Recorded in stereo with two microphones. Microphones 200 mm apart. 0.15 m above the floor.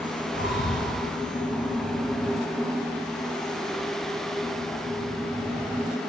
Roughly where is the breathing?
Left.